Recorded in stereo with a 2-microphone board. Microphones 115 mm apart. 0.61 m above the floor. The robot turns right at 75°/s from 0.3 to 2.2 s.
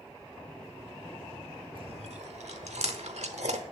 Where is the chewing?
50° right (ahead or behind), 0.9 m; by 3.6 s 75° right (ahead or behind), 0.9 m.